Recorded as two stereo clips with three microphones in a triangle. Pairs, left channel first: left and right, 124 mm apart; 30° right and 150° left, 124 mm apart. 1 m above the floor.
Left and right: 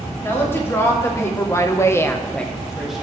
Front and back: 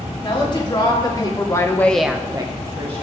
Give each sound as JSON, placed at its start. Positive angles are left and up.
{"t": 0.2, "sound": "a woman speaking", "azimuth_deg": 20, "distance_m": 2.5}